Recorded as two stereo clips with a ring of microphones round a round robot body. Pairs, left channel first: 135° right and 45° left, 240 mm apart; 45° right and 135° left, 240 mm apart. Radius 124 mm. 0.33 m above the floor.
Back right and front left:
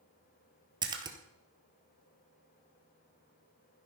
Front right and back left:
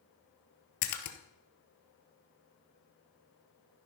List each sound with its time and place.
0.8 s a splash: 30° right, 1.5 m